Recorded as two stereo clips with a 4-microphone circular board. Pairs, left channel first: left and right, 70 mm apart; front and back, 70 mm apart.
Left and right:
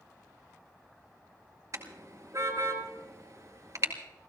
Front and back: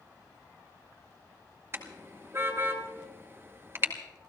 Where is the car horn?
130° right, 2 m.